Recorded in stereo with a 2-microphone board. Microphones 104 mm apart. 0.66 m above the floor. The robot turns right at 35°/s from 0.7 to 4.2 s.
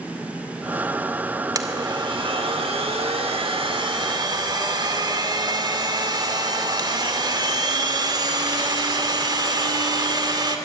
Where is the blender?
140° right, 2 m; by 10.6 s 50° right, 2 m.